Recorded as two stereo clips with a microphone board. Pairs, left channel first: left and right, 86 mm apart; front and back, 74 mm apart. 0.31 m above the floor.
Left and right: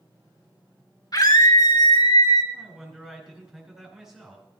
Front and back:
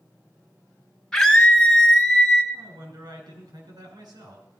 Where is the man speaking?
175° right, 5 m.